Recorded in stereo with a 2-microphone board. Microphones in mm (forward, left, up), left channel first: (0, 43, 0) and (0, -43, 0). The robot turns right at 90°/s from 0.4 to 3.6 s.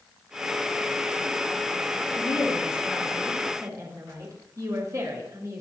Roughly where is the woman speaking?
Left.